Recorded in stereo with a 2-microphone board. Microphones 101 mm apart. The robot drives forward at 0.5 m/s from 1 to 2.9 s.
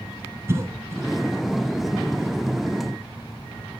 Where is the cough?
25° right (ahead or behind), 1.3 m.